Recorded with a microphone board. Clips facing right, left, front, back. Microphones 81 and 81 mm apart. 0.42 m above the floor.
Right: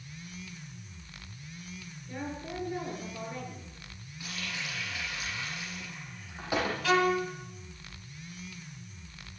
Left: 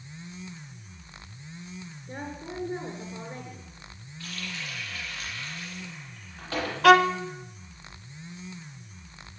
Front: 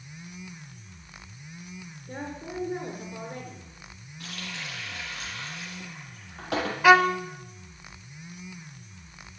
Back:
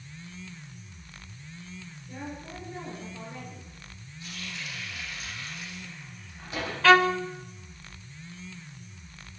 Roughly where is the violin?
Left.